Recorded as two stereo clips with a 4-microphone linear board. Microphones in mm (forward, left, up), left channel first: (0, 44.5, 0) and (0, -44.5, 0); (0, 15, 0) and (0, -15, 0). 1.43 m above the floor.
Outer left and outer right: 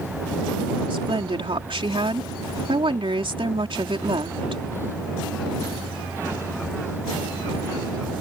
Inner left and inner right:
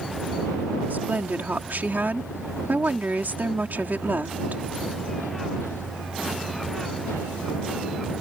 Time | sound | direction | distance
0.9 | a woman speaking | 85° right | ?